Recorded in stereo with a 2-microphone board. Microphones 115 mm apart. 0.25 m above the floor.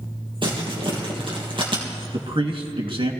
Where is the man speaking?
60° right (ahead or behind), 2.5 m.